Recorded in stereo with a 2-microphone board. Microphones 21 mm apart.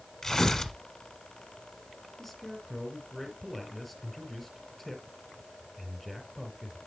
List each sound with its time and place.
0.2 s tearing paper: 15° left (ahead or behind), 1.3 m
2.2 s a man speaking: 5° left (ahead or behind), 3.5 m